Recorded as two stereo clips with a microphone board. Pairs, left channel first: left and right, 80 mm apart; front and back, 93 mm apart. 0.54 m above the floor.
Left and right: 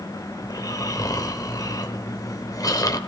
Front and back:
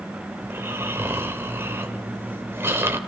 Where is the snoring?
120° left, 2.5 m.